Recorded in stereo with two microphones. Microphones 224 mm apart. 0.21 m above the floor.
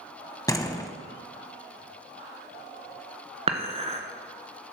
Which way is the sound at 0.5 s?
15° left (ahead or behind).